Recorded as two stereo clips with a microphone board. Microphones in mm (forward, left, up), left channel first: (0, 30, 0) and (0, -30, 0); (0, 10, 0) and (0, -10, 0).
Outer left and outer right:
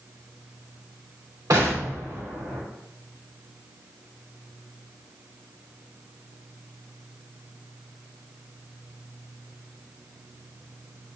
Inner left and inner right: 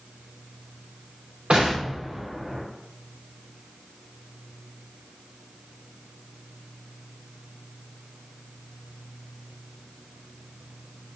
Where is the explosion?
70° right (ahead or behind), 1.6 m.